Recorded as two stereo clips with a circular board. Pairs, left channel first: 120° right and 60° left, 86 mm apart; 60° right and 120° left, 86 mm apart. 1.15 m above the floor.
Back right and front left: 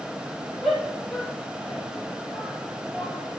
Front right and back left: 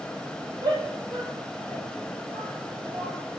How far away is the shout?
About 8 m.